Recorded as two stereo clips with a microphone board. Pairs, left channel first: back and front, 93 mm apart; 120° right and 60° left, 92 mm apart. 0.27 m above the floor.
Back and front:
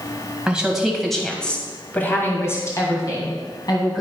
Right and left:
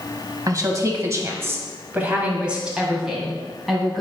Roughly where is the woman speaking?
Left.